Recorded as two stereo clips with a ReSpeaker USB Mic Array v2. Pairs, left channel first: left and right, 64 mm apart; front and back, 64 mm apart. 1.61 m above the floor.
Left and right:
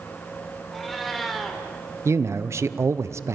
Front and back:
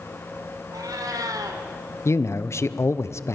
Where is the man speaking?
45° right, 0.8 m.